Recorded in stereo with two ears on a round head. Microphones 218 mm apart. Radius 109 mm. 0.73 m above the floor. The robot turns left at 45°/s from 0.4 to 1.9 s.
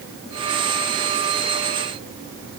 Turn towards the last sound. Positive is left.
No sound to turn to.